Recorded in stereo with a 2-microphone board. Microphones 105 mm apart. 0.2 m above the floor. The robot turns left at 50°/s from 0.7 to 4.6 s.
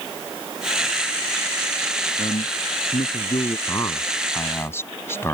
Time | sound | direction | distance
2.2 | a man speaking | 115° left | ?
3.7 | a man speaking | 100° left | ?